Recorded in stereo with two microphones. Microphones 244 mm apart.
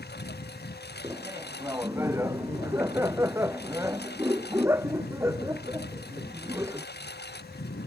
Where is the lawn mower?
45° left (ahead or behind).